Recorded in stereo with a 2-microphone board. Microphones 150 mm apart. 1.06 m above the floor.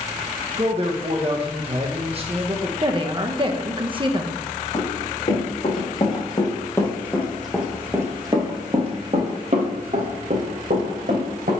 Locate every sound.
0.6 s a man speaking: 40° right (ahead or behind), 0.8 m
2.8 s a woman speaking: 35° right (ahead or behind), 0.7 m
4.7 s running footsteps: 45° left (ahead or behind), 3 m; by 11.5 s 70° right (ahead or behind), 3 m